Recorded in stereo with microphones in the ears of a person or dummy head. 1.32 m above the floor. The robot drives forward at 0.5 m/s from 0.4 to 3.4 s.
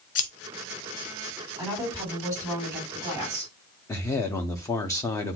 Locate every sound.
0.1 s scissors: 45° left (ahead or behind), 0.5 m
1.6 s a woman speaking: 15° right (ahead or behind), 3.5 m
3.9 s a man speaking: 20° left (ahead or behind), 0.7 m